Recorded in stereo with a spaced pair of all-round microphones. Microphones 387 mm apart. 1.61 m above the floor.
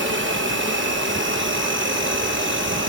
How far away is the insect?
About 0.9 m.